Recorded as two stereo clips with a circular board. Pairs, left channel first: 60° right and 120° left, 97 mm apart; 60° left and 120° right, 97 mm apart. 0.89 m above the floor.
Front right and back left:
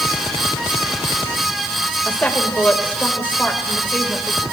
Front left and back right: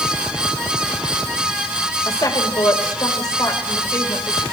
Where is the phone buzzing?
No phone buzzing in this recording.